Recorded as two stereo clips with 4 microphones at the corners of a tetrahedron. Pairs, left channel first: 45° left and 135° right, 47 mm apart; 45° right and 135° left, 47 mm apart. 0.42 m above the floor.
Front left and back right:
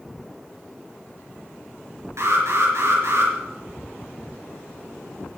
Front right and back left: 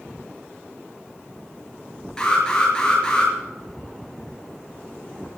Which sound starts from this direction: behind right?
An alarm, at 2.2 s.